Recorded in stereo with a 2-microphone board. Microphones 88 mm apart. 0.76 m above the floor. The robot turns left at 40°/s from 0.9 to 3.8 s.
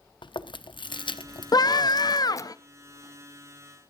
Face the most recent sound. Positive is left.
turn(degrees=15)